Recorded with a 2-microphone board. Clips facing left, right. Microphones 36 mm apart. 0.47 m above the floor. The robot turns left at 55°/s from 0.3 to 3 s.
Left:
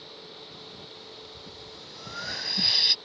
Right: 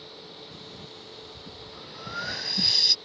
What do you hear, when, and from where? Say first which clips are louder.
0.5 s breathing: right 1 dB; 75° right (ahead or behind); by 3.0 s 30° left (ahead or behind)